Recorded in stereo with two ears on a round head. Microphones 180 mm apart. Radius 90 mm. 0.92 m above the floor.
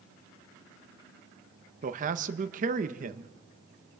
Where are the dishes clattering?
I don't hear dishes clattering.